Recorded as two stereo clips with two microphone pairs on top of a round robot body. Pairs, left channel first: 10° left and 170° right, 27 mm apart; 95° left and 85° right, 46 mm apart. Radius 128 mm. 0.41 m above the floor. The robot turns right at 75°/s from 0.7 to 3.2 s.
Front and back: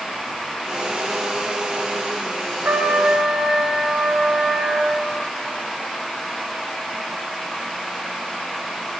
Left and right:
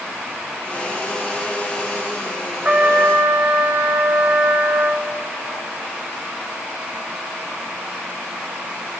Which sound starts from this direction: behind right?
A trumpet, at 2.6 s.